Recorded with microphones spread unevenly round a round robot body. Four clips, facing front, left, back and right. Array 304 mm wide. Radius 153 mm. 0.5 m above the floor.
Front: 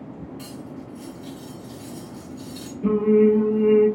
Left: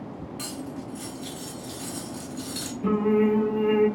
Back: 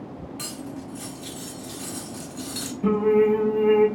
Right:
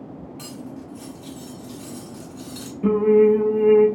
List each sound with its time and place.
0.4 s cutlery clinking: straight behind, 0.8 m
2.8 s singing: 120° right, 0.8 m